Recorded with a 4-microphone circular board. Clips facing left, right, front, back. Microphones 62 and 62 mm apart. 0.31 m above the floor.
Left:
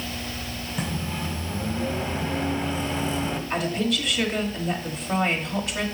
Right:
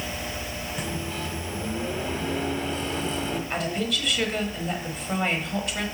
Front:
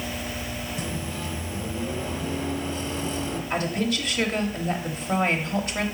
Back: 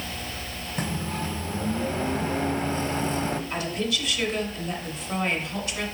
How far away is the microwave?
About 1.3 m.